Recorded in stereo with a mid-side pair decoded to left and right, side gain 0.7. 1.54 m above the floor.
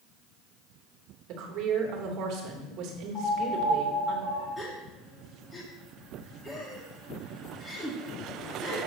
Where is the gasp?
20° left, 2 m.